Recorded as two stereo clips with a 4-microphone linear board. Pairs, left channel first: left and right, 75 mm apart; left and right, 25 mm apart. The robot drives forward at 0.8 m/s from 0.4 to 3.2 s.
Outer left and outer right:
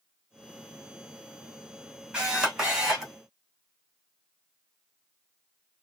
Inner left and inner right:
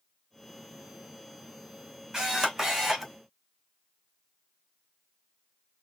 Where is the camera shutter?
15° right (ahead or behind), 1.7 m; by 3.1 s 10° right (ahead or behind), 2 m.